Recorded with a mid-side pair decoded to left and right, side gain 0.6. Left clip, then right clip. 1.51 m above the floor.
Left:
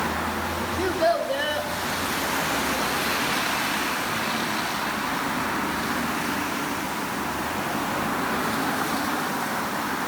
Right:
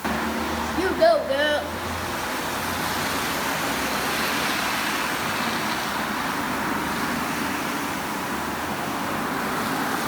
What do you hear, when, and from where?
0.8 s a child speaking: 30° right, 1.7 m